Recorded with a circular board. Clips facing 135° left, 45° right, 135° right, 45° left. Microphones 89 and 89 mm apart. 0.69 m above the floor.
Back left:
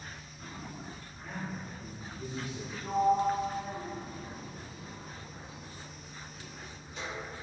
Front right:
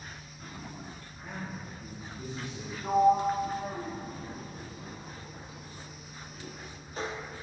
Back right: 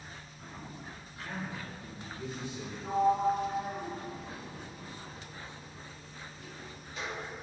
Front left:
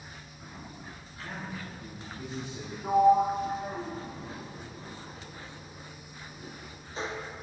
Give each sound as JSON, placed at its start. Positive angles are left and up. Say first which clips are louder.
{"t": 1.2, "sound": "a man speaking", "louder": "even, even", "azimuth_deg": 0, "distance_m": 1.4}
{"t": 2.8, "sound": "a sliding door", "louder": "front right 3 dB, front left 5 dB", "azimuth_deg": -10, "distance_m": 0.5}